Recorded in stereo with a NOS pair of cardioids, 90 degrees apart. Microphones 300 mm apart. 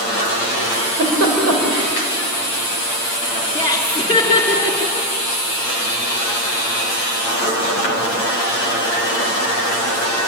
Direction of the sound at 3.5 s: 15° left.